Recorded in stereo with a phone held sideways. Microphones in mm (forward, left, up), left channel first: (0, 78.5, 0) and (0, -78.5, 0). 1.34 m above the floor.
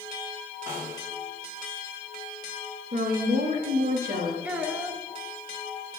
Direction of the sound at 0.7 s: 20° right (ahead or behind).